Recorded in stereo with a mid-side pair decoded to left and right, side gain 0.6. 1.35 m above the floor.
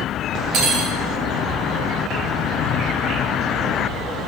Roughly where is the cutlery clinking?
Ahead right.